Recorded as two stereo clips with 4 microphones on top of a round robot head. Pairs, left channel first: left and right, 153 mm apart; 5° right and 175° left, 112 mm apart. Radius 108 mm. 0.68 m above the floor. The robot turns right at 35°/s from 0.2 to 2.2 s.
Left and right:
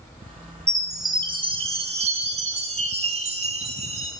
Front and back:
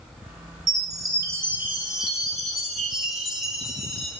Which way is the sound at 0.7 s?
155° right.